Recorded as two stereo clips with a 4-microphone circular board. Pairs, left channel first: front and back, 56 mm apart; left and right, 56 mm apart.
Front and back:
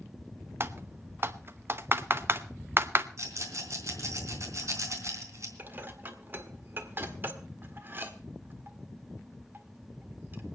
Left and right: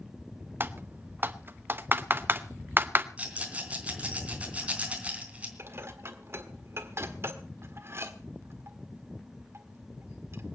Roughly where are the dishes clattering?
Behind right.